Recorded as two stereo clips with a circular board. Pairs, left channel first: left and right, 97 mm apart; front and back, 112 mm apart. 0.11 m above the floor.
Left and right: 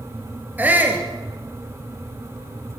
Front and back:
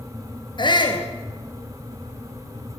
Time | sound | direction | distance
0.6 | a shout | 20° right | 2.5 m